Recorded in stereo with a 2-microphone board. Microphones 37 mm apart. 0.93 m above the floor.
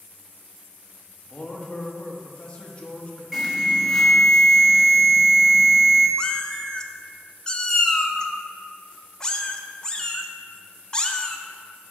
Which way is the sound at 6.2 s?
15° left (ahead or behind).